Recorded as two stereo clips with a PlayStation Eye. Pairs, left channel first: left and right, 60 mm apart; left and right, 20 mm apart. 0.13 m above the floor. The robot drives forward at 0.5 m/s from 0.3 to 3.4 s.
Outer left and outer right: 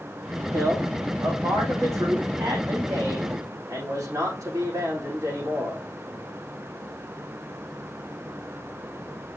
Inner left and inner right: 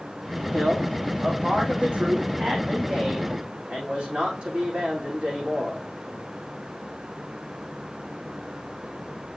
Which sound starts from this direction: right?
A man speaking, at 0.5 s.